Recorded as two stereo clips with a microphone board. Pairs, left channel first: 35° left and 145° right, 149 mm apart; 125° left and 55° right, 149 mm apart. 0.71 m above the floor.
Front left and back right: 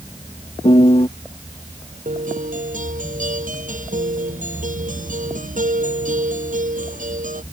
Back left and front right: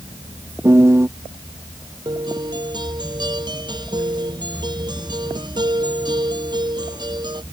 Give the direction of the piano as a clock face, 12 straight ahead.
12 o'clock.